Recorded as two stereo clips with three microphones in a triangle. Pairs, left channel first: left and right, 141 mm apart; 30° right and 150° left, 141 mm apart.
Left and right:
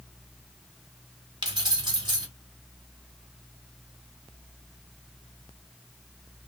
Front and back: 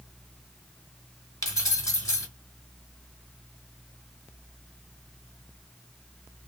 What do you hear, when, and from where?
1.4 s keys jangling: 75° right, 1.2 m